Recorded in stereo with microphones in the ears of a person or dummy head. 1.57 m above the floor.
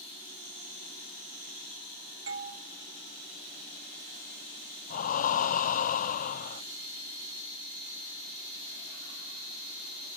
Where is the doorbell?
75° right (ahead or behind), 1.6 m.